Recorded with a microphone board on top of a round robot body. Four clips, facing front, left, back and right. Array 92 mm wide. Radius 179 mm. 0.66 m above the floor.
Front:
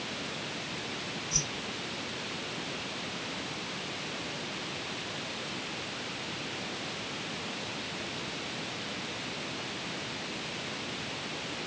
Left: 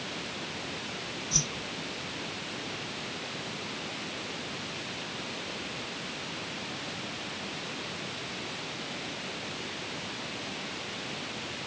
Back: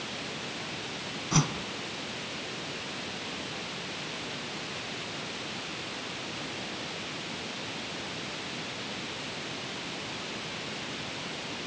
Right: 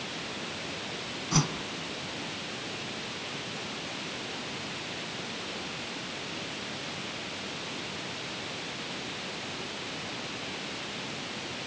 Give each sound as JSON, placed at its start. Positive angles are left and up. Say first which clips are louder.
{"t": 1.3, "sound": "a whoosh", "louder": "right 11 dB, back 8 dB", "azimuth_deg": -140}